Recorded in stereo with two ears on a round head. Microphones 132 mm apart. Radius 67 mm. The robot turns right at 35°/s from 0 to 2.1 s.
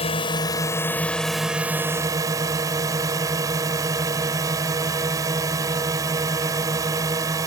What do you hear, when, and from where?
0.0 s a drone: 135° left; by 7.5 s 155° right